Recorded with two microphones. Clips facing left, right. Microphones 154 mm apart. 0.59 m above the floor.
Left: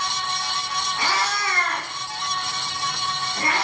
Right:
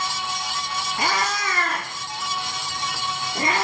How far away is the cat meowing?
About 0.7 m.